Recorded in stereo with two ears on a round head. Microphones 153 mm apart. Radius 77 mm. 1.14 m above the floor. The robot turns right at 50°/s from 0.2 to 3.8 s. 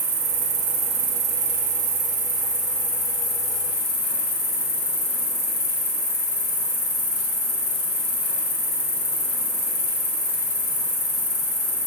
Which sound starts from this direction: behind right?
An insect, at 0.0 s.